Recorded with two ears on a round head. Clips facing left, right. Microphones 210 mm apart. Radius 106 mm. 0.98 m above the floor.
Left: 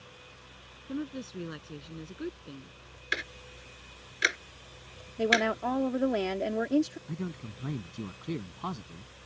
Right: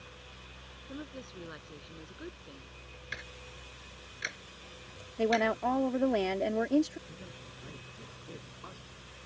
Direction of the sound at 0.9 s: 40° left (ahead or behind).